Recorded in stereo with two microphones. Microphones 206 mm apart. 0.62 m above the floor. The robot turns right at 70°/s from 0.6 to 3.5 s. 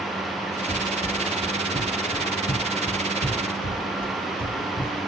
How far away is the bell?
I don't hear a bell.